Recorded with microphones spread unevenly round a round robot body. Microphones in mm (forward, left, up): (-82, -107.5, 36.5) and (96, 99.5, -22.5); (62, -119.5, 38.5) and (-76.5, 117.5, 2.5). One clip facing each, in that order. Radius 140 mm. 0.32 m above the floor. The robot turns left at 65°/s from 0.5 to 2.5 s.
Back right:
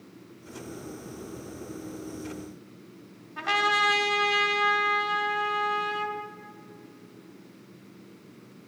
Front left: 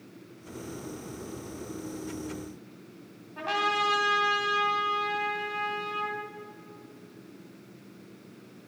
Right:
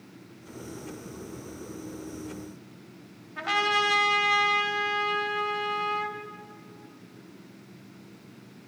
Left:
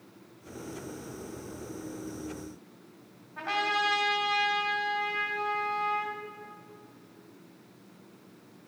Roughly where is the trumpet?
Right.